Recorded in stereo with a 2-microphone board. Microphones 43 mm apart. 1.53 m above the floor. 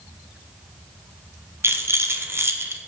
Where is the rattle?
75° right (ahead or behind), 1.0 m.